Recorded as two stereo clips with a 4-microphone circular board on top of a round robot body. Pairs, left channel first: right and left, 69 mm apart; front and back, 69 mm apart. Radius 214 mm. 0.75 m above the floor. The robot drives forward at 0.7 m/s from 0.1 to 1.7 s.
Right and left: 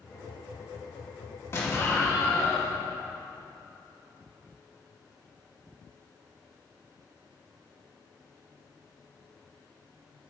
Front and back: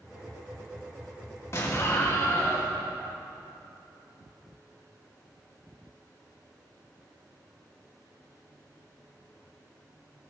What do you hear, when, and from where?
1.5 s an explosion: 45° right, 2 m